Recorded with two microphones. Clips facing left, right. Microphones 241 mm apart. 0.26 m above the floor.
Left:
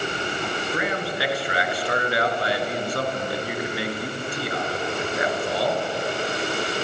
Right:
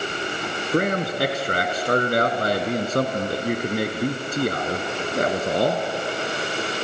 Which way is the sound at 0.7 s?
45° right (ahead or behind).